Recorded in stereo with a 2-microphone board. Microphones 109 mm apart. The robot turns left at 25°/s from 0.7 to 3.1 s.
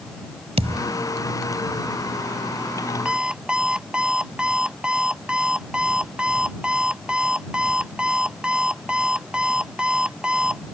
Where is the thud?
70° right (ahead or behind); by 0.9 s 75° right (ahead or behind).